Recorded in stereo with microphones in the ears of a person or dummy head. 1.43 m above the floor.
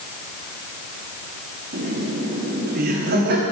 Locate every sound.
1.7 s laughter: 50° right (ahead or behind), 1.2 m